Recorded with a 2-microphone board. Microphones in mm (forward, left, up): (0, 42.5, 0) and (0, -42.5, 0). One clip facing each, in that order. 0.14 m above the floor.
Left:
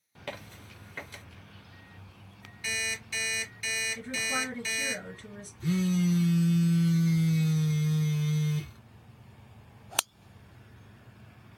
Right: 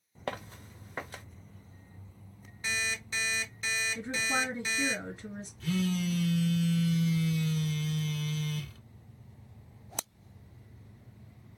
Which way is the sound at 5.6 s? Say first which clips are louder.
Left 4 dB; 25° left (ahead or behind).